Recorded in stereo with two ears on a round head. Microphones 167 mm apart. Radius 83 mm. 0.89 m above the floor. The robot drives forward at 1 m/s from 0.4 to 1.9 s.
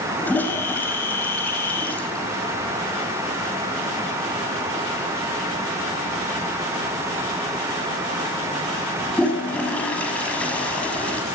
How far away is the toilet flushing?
About 4.5 m.